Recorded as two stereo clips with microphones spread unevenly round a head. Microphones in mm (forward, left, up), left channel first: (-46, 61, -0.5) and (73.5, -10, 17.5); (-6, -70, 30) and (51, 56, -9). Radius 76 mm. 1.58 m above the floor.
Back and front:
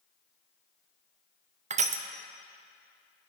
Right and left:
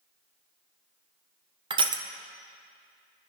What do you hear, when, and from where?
1.7 s crushing: 10° left, 0.8 m